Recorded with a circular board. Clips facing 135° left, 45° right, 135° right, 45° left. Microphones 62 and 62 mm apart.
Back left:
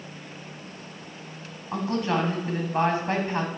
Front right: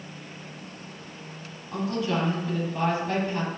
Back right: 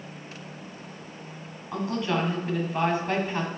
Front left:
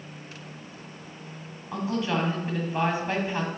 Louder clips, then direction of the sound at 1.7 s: Back left 2 dB, even; 120° left.